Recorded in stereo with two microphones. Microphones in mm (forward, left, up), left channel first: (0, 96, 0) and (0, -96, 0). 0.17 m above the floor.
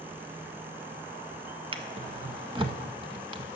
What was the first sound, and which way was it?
A drawer, 30° right (ahead or behind).